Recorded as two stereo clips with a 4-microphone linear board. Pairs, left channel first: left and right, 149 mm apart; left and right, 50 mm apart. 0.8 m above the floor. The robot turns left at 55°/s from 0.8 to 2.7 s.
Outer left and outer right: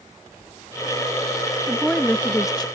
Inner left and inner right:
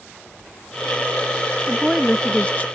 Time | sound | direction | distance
1.7 | a woman speaking | 170° right | ?